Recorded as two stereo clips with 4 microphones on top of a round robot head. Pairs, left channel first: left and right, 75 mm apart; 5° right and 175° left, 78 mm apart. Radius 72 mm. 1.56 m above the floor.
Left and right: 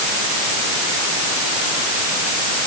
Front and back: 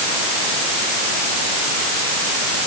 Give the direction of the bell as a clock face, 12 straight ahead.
I don't hear a bell.